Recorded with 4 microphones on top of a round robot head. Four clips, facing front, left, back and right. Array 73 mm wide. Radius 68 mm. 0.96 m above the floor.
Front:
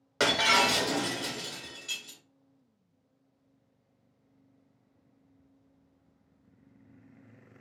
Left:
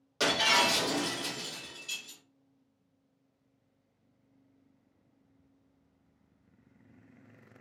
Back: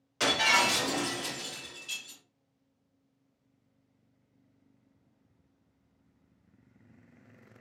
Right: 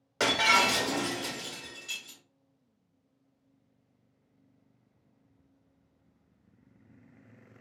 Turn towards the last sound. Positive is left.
turn(degrees=-15)